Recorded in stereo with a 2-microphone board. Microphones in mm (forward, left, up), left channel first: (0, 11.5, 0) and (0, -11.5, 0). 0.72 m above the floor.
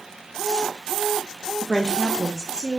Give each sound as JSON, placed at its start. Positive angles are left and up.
{"t": 1.6, "sound": "a woman speaking", "side_deg": 5, "distance_m": 0.8}